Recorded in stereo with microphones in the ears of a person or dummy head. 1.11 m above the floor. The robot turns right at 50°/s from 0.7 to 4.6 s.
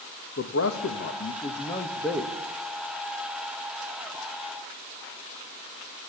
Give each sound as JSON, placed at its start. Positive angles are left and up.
{"t": 0.4, "sound": "a man speaking", "azimuth_deg": 105, "distance_m": 1.7}